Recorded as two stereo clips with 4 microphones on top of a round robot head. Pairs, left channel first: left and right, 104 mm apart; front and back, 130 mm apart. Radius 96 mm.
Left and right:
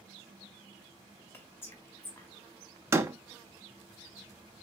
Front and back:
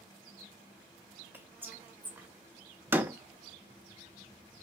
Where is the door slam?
120° right, 0.5 m.